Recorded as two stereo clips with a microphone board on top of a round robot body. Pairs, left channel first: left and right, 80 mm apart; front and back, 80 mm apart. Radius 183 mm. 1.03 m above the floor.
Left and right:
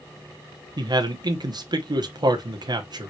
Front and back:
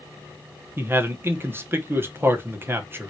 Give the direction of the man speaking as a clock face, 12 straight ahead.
4 o'clock.